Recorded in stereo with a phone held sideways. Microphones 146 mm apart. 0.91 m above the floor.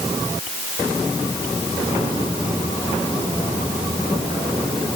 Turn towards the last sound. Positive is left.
No sound to turn to.